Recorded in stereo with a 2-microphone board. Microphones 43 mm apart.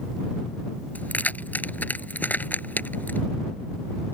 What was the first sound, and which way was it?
Keys jangling, 40° left (ahead or behind).